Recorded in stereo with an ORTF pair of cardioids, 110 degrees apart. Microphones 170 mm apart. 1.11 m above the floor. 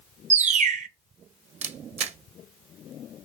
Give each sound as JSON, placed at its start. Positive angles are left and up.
{"t": 0.3, "sound": "a bird", "azimuth_deg": -45, "distance_m": 0.8}
{"t": 1.6, "sound": "a camera shutter", "azimuth_deg": -40, "distance_m": 0.9}